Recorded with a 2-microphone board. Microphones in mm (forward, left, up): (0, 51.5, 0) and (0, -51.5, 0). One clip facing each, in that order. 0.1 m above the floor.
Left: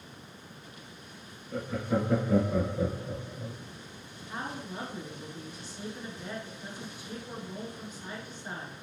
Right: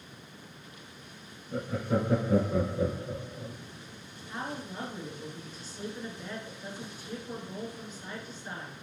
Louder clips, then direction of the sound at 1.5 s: Even; 35° right (ahead or behind).